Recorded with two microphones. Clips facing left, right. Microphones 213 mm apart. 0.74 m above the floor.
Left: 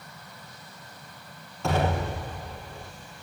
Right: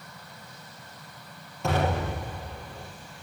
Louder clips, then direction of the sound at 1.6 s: Even; 20° right (ahead or behind).